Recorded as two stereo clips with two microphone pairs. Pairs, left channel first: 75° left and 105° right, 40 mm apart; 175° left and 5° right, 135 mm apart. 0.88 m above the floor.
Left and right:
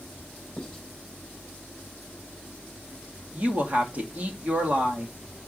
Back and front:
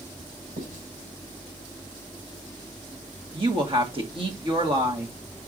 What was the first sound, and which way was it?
Writing, 5° right.